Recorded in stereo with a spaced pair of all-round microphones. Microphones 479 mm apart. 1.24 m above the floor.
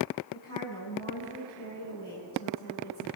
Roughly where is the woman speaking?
Left.